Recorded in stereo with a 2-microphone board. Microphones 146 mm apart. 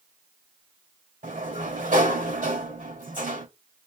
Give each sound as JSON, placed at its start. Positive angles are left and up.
{"t": 1.2, "sound": "a sliding door", "side_deg": -65, "distance_m": 2.0}